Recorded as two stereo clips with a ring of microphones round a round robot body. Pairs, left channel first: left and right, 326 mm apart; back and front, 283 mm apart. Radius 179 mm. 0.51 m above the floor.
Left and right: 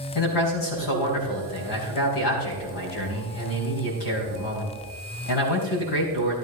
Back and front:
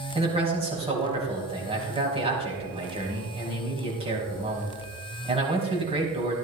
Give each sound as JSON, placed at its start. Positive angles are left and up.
{"t": 0.1, "sound": "a man speaking", "azimuth_deg": 70, "distance_m": 4.5}